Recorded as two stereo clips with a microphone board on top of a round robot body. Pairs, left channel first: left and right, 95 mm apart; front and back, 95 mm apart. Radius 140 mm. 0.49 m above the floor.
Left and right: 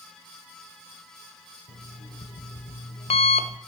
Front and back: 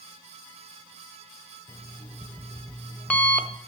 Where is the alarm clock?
80° left, 1.0 m.